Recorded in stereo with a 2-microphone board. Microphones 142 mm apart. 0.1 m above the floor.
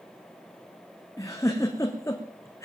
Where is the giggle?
20° left (ahead or behind), 2.5 m.